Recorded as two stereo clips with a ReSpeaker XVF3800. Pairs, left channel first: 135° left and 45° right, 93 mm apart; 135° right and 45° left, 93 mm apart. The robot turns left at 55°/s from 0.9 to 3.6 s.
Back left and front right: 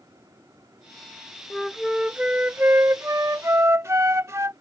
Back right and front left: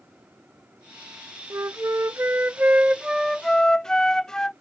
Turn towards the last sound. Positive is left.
turn(degrees=-60)